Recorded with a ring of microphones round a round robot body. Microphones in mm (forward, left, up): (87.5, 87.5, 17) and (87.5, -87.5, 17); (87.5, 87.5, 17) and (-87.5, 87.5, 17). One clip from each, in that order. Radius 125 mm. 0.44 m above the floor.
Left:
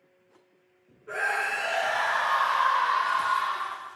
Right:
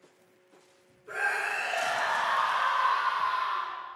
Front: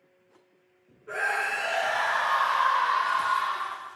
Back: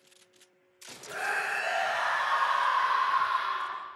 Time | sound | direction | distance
1.1 | a scream | 15° left | 6 m